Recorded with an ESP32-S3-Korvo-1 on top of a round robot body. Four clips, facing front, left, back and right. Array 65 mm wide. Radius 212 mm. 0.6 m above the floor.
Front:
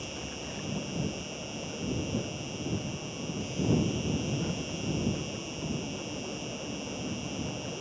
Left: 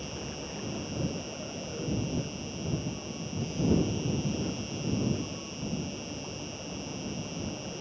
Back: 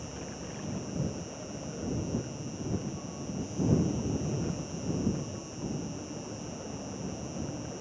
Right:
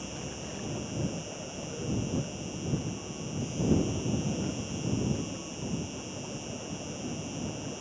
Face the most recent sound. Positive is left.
turn(degrees=10)